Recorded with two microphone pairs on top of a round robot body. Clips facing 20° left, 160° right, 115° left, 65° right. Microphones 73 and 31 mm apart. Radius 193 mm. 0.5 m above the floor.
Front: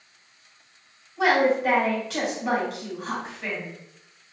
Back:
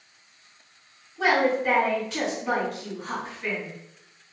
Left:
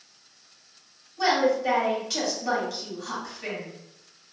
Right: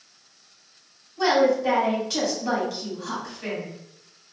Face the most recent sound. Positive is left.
turn(degrees=5)